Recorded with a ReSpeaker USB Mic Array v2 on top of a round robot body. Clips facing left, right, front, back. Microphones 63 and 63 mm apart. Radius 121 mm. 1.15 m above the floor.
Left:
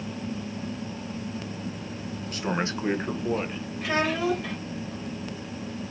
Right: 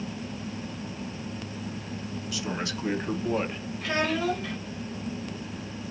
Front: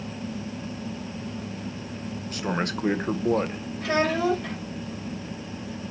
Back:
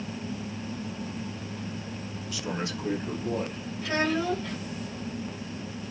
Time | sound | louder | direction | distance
2.3 | a man speaking | left 5 dB, front 5 dB | 40° left | 1.5 m
3.8 | a child speaking | left 1 dB, front 4 dB | 5° left | 3 m